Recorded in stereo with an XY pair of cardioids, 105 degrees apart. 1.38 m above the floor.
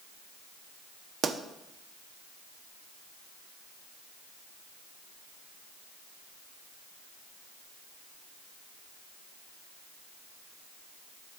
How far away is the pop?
About 0.8 m.